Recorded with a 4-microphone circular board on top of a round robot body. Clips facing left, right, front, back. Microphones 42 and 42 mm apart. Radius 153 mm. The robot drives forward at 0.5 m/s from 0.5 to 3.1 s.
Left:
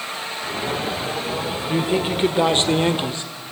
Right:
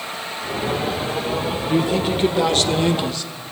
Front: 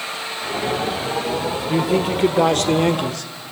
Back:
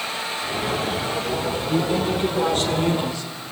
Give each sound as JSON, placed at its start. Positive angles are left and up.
{"t": 1.7, "sound": "a man speaking", "azimuth_deg": 20, "distance_m": 2.5}